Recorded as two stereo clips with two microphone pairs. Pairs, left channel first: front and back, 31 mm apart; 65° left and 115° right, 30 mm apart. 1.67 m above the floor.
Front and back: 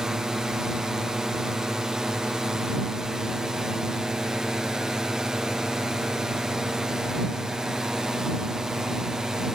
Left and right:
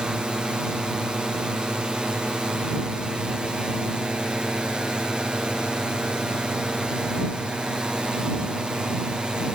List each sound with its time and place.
0.0 s a drone: 135° right